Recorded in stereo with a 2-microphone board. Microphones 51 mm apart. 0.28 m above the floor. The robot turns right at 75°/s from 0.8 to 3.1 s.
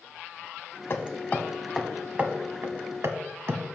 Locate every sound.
0.9 s hammering: 55° left (ahead or behind), 0.9 m; by 3.6 s 60° right (ahead or behind), 0.9 m